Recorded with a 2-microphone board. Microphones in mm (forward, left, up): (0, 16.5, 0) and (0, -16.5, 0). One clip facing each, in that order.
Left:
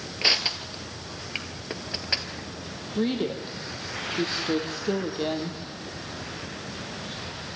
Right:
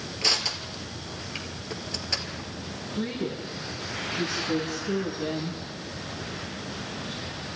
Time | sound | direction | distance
0.2 | crushing | 25° left (ahead or behind) | 1.6 m
3.0 | a woman speaking | 55° left (ahead or behind) | 3.5 m